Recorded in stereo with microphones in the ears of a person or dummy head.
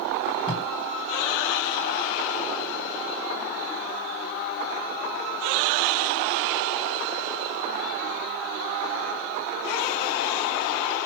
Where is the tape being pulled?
45° left (ahead or behind), 3.5 m.